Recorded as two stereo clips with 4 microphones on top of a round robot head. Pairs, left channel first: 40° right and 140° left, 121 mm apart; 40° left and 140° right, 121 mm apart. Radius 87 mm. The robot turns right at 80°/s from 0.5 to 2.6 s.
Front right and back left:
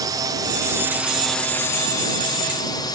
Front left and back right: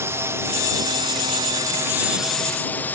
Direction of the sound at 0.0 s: 170° left.